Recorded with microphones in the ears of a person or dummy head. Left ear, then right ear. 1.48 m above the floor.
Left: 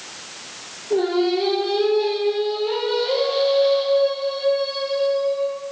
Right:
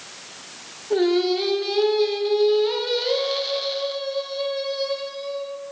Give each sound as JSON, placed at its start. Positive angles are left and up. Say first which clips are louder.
{"t": 0.9, "sound": "singing", "louder": "even", "side_deg": -55, "distance_m": 0.6}